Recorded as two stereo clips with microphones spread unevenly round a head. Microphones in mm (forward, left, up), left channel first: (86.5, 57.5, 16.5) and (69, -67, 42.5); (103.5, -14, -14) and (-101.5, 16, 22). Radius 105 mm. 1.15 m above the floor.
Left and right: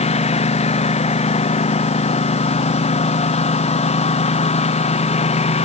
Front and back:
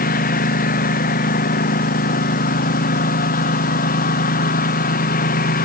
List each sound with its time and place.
0.0 s a lawn mower: 45° left